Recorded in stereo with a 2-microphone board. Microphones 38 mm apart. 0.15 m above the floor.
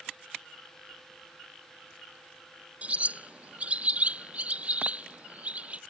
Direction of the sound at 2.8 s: 35° right (ahead or behind).